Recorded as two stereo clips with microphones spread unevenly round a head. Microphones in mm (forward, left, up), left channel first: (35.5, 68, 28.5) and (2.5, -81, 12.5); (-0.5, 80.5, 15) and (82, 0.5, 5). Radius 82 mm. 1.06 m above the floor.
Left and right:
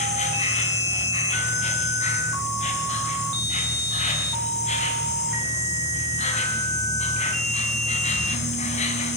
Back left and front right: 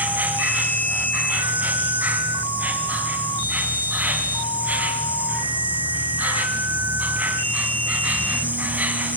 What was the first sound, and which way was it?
An insect, 35° left.